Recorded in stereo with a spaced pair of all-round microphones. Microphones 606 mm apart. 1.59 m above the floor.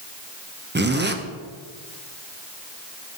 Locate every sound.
0.8 s a zipper: 20° right (ahead or behind), 0.7 m